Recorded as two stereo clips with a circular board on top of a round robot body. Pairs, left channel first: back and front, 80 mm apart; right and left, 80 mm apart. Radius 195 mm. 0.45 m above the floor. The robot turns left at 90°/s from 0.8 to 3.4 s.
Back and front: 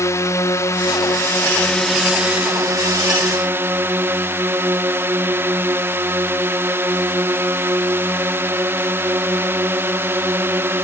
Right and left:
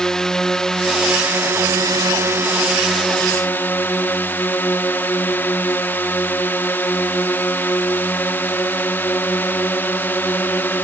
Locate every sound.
0.0 s a drone: 170° right; by 10.8 s 40° right